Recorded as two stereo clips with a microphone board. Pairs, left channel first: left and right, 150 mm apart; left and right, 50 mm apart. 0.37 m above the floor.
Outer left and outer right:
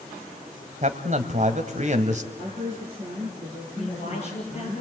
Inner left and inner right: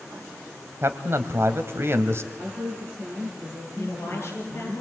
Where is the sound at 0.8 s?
50° right (ahead or behind), 2 m.